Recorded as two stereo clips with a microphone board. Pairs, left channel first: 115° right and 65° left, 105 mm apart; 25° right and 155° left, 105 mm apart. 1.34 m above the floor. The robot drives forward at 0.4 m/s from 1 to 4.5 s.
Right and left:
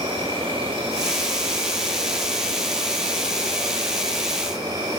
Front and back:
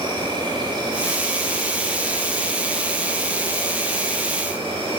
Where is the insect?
110° left, 7.5 m; by 5.0 s 115° left, 8 m.